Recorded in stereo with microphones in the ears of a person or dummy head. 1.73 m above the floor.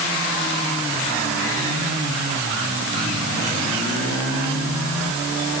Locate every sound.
Only background noise.